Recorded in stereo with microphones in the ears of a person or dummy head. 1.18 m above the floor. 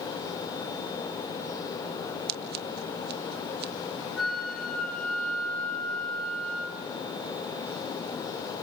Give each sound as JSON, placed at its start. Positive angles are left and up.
{"t": 2.3, "sound": "scissors", "side_deg": -50, "distance_m": 0.9}
{"t": 4.2, "sound": "a flute", "side_deg": 5, "distance_m": 7.0}